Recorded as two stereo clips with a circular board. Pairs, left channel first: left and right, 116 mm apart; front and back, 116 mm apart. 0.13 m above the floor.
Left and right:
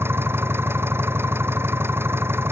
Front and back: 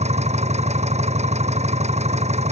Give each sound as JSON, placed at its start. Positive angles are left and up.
{"t": 0.0, "sound": "an engine running", "azimuth_deg": -160}